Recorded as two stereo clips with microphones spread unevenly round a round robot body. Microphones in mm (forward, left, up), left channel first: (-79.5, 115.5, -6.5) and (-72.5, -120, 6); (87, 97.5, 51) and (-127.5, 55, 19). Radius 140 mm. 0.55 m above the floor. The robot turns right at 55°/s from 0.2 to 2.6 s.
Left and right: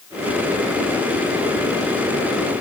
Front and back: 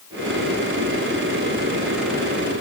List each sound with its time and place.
Only background noise.